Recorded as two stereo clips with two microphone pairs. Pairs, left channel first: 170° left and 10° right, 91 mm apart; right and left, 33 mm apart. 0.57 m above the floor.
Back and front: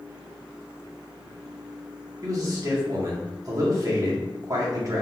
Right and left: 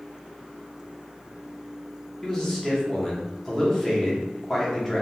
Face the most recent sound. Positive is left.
turn(degrees=-20)